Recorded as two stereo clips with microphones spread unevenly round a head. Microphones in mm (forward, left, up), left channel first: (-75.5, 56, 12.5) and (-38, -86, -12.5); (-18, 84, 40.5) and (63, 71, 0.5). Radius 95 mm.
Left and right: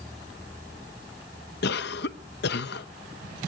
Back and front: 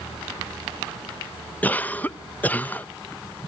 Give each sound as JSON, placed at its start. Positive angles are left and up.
{"t": 1.6, "sound": "a cough", "azimuth_deg": 85, "distance_m": 0.7}